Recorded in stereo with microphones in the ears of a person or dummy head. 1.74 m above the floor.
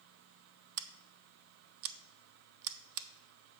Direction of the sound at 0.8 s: 80° right.